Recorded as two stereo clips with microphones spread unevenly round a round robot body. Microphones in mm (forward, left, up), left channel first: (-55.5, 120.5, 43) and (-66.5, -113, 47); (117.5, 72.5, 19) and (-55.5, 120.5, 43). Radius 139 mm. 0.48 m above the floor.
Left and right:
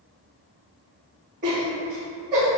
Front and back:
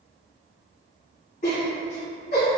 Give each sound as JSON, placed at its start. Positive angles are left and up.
{"t": 1.4, "sound": "laughter", "azimuth_deg": -45, "distance_m": 1.9}